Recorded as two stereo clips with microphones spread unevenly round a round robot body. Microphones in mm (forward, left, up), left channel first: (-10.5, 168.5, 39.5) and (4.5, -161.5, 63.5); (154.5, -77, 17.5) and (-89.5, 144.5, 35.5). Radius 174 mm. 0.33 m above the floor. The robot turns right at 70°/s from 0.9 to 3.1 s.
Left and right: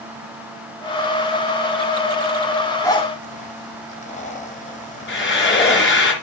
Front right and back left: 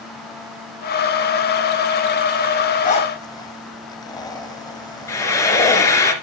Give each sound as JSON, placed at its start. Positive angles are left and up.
{"t": 2.8, "sound": "a zipper", "azimuth_deg": 15, "distance_m": 1.7}
{"t": 5.1, "sound": "frying", "azimuth_deg": 40, "distance_m": 2.5}